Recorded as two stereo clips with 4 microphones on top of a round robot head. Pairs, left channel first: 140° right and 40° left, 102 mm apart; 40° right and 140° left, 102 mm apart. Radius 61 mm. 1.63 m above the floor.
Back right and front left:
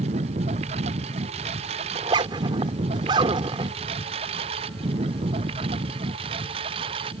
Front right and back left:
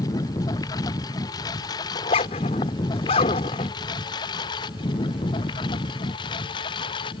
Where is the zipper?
5° right.